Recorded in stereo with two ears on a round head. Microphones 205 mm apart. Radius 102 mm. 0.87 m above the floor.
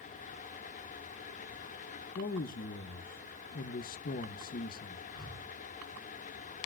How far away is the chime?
I don't hear a chime.